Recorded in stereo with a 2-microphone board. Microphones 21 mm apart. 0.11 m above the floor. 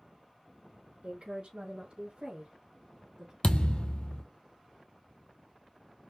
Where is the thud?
60° left (ahead or behind), 0.8 m.